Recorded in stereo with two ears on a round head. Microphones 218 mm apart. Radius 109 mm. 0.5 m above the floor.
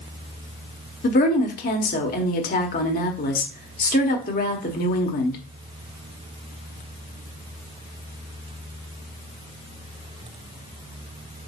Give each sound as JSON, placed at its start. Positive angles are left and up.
{"t": 1.0, "sound": "a woman speaking", "side_deg": 35, "distance_m": 1.4}